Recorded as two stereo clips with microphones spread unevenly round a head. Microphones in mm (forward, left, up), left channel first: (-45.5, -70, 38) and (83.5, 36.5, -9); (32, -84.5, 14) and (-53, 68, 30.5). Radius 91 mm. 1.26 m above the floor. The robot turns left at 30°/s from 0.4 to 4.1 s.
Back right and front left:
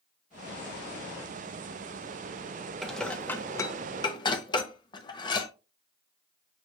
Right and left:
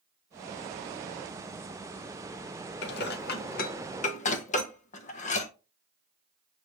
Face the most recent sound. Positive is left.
turn(degrees=-105)